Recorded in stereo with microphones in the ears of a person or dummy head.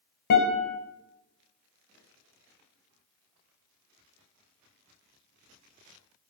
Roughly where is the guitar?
Left.